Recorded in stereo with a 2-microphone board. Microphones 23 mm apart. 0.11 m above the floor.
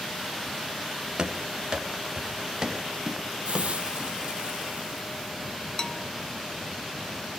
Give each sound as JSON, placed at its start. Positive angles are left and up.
{"t": 1.2, "sound": "running footsteps", "side_deg": -40, "distance_m": 4.5}
{"t": 3.5, "sound": "a hiss", "side_deg": -60, "distance_m": 3.5}
{"t": 5.8, "sound": "a bell", "side_deg": 25, "distance_m": 0.9}